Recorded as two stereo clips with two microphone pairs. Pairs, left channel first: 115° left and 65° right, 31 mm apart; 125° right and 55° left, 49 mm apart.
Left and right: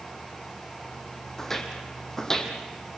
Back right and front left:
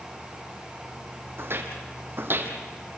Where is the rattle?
No rattle in this recording.